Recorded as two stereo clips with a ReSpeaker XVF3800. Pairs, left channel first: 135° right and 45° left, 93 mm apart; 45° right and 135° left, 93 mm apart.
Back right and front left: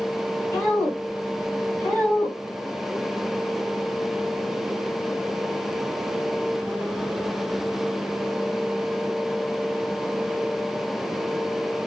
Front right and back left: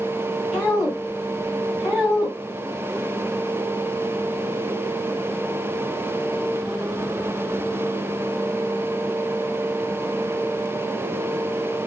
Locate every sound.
0.5 s a woman speaking: 140° right, 1.7 m